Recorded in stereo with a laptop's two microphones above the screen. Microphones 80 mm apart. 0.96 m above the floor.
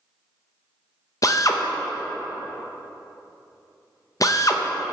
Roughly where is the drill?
Left.